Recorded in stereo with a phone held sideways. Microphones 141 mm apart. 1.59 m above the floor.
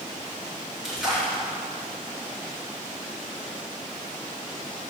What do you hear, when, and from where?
0.8 s a splash: 5° right (ahead or behind), 2.5 m